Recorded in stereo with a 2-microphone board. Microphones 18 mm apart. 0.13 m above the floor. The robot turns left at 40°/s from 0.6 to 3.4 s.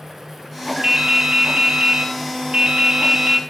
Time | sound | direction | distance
0.8 | dripping | 45° right | 1.6 m